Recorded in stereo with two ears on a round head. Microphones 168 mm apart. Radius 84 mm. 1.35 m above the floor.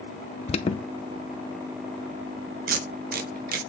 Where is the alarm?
30° left (ahead or behind), 0.6 m.